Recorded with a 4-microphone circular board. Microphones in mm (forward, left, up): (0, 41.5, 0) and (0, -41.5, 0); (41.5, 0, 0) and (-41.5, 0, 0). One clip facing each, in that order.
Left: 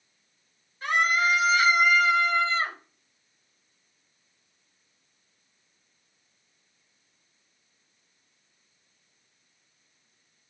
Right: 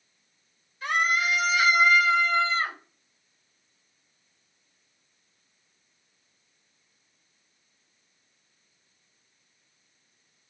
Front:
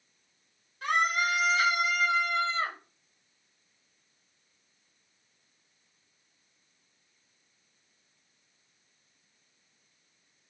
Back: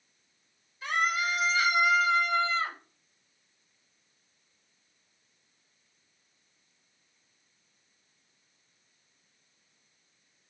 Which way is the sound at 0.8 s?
35° left.